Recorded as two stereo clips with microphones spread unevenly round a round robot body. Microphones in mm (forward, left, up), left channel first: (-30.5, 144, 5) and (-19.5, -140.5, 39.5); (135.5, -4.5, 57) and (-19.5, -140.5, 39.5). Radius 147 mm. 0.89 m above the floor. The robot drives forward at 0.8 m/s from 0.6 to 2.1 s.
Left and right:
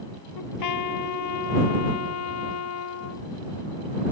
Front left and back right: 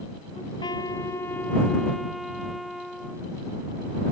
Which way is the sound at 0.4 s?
115° left.